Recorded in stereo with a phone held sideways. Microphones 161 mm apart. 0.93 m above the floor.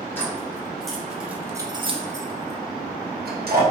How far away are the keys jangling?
About 1.4 m.